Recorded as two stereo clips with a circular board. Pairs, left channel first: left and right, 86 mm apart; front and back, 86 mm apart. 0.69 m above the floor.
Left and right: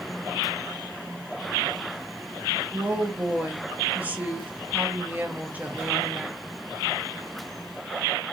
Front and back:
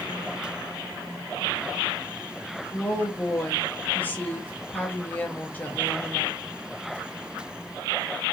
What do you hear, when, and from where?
2.7 s a woman speaking: 40° right, 0.7 m